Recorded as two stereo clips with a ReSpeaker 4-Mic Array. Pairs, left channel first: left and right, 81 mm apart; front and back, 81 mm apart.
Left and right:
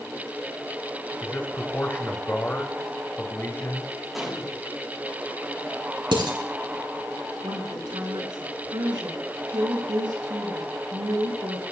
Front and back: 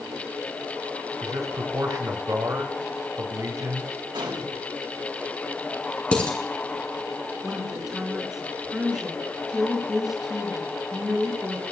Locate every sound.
1.2 s a man speaking: 145° left, 1.7 m
4.1 s a gunshot: straight behind, 3.5 m
6.1 s dishes clattering: 75° right, 4 m
7.4 s a woman speaking: 95° right, 5 m